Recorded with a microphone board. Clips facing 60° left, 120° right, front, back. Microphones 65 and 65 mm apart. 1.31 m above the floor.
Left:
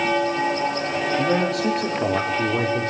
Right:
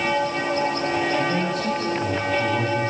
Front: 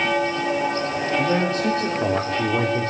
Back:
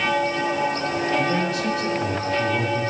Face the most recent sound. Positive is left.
turn(degrees=25)